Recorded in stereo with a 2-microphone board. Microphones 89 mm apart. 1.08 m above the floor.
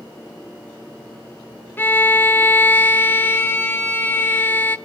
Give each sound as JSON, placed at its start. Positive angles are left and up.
{"t": 1.8, "sound": "a violin", "side_deg": 25, "distance_m": 0.9}